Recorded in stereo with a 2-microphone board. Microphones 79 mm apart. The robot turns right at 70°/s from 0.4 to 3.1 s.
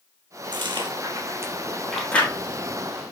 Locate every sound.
0.5 s chewing: 75° right (ahead or behind), 3 m; by 2.3 s 30° left (ahead or behind), 3 m